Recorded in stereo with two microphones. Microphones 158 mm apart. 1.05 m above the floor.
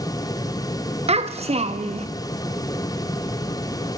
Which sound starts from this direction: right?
A child speaking, at 1.1 s.